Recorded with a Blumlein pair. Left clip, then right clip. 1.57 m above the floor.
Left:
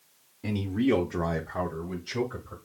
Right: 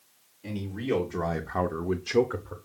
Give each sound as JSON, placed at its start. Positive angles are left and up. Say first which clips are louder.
{"t": 0.4, "sound": "a man speaking", "louder": "left 4 dB", "azimuth_deg": 35, "distance_m": 0.8}